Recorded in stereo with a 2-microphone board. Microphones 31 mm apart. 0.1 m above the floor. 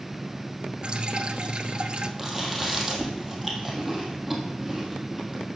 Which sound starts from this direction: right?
Dripping, at 0.8 s.